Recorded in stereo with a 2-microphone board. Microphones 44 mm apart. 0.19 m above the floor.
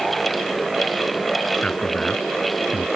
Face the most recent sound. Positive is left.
turn(degrees=25)  # may be behind; listen again after turning